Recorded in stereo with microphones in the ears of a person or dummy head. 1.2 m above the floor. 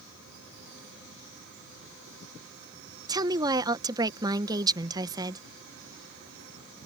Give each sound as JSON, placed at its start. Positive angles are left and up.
{"t": 3.1, "sound": "a woman speaking", "side_deg": -20}